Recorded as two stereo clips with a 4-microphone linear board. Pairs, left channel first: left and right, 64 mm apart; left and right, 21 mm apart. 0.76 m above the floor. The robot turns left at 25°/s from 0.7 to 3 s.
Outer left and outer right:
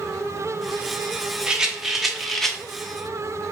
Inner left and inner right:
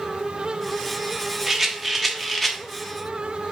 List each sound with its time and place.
1.5 s a rattle: 10° right (ahead or behind), 0.6 m; by 2.6 s 10° left (ahead or behind), 0.6 m